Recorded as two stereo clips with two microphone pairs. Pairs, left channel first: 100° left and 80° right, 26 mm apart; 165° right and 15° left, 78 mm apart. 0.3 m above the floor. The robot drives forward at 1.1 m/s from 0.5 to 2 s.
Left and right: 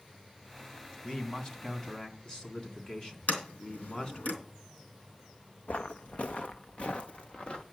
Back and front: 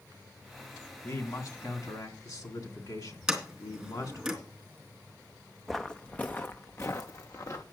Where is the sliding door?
100° left, 4 m.